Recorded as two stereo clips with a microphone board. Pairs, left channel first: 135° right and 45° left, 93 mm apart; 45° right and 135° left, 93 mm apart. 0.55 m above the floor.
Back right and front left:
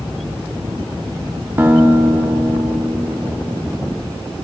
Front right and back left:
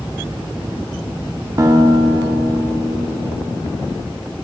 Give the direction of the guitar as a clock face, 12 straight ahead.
9 o'clock.